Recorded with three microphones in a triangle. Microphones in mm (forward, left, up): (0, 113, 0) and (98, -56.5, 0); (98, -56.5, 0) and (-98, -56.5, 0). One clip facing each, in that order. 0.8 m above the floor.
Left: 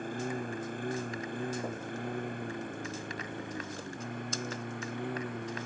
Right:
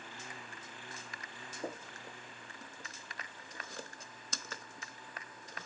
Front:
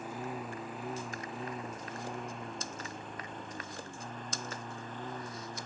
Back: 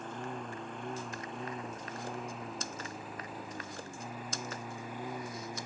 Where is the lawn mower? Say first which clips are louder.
Left 16 dB, front 1 dB; 85° left; by 5.7 s 100° left.